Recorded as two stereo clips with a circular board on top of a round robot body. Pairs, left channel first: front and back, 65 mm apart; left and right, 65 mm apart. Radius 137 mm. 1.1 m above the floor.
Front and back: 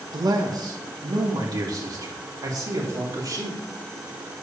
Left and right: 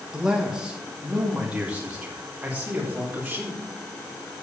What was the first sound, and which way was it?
A man speaking, 170° right.